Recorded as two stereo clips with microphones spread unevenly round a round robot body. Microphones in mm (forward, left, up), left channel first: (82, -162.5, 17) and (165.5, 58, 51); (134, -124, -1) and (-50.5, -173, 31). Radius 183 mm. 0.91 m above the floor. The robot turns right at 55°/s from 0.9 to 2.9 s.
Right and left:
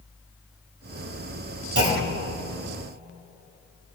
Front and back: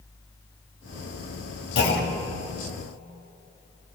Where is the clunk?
30° left, 3.5 m; by 2.3 s 65° left, 3.5 m.